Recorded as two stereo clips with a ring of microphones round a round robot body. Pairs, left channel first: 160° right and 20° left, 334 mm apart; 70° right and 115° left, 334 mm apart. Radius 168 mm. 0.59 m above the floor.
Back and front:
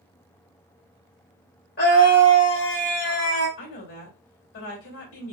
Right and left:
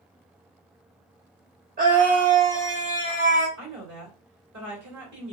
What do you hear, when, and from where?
1.8 s a scream: 160° left, 1.1 m
3.6 s a woman speaking: 150° left, 2.5 m